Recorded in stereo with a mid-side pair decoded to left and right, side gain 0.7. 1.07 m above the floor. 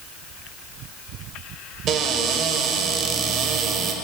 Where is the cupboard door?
45° right, 3 m.